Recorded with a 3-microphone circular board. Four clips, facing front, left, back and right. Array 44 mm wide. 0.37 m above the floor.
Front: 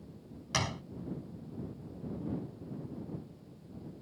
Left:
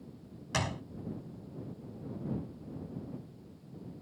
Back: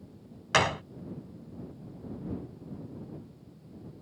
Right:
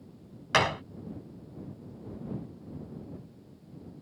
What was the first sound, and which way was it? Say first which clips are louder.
A gunshot: right 9 dB, back 9 dB; 135° right.